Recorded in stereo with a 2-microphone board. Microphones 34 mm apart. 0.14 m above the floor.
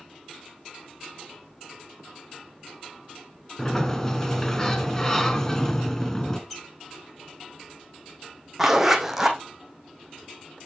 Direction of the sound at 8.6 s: 10° right (ahead or behind).